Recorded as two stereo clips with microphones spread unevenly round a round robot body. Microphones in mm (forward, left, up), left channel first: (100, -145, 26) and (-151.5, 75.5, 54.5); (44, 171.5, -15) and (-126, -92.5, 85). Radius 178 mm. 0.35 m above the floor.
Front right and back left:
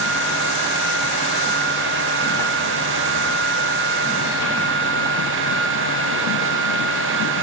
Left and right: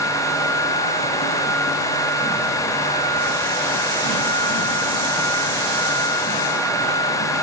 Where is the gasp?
I don't hear a gasp.